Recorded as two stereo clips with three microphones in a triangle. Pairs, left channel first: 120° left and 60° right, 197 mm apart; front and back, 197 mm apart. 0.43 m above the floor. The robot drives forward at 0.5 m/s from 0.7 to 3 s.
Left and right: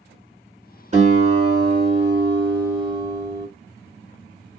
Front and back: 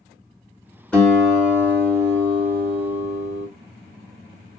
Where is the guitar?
80° right, 1.5 m; by 3.5 s 135° right, 1.8 m.